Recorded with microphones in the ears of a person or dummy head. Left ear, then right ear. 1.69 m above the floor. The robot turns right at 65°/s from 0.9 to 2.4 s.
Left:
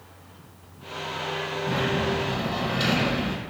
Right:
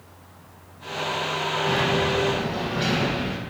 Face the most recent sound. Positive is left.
turn(degrees=35)